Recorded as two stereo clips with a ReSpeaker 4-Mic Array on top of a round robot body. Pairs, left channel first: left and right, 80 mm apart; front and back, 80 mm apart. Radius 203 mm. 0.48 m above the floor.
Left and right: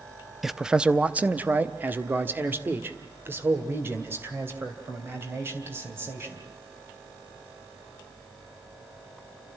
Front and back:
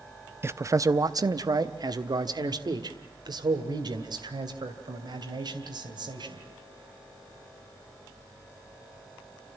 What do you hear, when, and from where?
0.4 s a man speaking: 175° right, 0.7 m; by 6.4 s 150° right, 4 m